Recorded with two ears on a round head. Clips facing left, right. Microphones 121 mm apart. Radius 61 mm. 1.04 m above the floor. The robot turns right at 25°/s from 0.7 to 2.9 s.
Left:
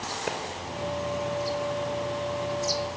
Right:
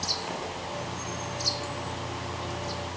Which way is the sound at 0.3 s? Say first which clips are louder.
Left 5 dB; 75° left (ahead or behind).